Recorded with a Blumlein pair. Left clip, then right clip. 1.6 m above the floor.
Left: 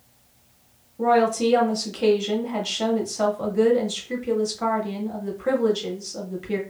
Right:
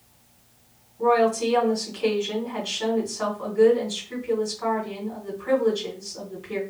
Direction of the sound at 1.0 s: 45° left.